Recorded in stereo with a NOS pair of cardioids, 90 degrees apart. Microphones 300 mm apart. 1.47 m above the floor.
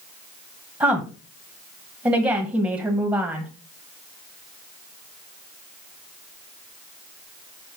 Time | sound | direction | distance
0.8 | a woman speaking | 10° right | 1.5 m